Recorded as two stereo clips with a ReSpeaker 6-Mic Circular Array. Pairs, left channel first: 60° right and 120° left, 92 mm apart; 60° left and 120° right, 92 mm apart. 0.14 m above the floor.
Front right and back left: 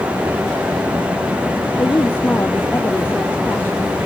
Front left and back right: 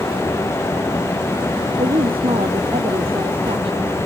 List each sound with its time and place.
1.8 s a woman speaking: 125° right